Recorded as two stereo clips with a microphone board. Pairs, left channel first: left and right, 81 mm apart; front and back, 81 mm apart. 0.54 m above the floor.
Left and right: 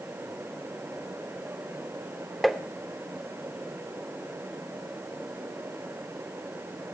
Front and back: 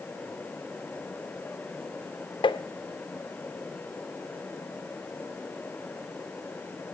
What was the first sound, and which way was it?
Tapping, straight ahead.